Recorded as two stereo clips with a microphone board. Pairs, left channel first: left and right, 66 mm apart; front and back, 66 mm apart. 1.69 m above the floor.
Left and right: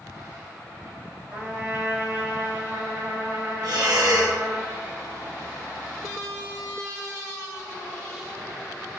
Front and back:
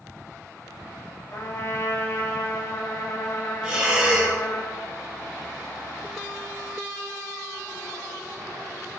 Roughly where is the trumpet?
Ahead right.